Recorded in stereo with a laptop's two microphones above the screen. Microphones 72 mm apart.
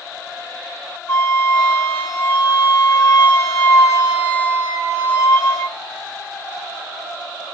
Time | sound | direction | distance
1.1 | a flute | 35° left (ahead or behind) | 2.5 m